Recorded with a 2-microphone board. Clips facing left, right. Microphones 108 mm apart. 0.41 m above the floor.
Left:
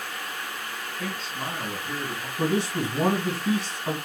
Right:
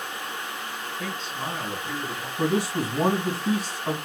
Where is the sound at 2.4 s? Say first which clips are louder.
Right 1 dB; 15° right (ahead or behind), 3.5 m.